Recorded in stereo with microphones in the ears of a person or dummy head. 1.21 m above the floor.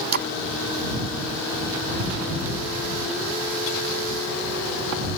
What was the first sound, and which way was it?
A splash, 50° right (ahead or behind).